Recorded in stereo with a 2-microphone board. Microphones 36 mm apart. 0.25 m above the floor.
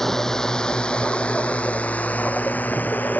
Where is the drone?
5° left (ahead or behind); by 3.2 s 50° left (ahead or behind).